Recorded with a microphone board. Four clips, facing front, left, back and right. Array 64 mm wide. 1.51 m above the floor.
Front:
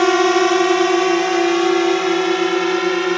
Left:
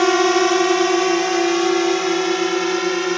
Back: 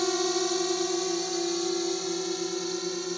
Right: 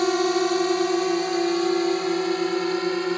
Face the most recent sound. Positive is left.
turn(degrees=20)